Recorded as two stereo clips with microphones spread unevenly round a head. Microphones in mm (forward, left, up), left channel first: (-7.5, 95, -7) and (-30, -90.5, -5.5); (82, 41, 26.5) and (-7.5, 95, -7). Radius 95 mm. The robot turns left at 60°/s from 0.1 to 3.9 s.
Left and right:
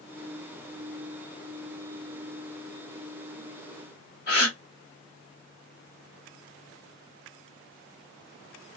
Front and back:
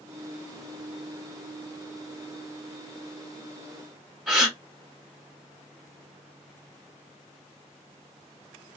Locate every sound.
4.3 s a gasp: 50° left, 1.3 m